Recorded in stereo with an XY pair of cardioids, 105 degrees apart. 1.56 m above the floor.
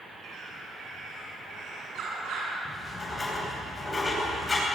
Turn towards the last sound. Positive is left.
turn(degrees=25)